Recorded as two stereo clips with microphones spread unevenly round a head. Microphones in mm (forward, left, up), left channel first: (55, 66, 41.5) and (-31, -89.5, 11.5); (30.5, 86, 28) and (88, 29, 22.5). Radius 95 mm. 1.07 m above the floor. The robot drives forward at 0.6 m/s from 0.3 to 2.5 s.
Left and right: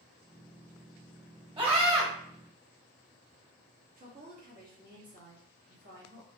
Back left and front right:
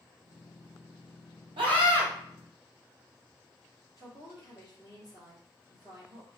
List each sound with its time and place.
1.6 s a scream: 60° right, 1.7 m; by 2.1 s 70° right, 1.5 m
4.0 s a woman speaking: 160° right, 1.7 m